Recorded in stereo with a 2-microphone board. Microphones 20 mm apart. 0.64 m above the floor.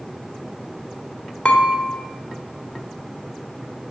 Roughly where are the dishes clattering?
Left.